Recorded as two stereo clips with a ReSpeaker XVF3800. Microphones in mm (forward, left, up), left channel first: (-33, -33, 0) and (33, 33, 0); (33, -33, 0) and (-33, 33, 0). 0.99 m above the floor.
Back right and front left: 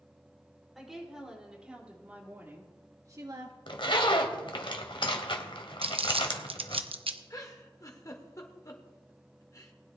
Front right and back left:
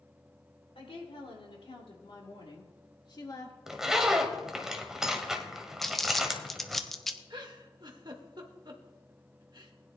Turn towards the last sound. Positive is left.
turn(degrees=170)